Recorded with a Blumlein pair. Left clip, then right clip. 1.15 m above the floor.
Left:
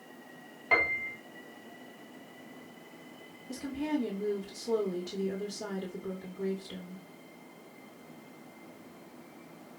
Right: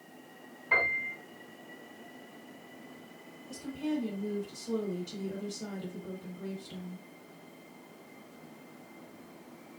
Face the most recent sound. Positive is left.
turn(degrees=65)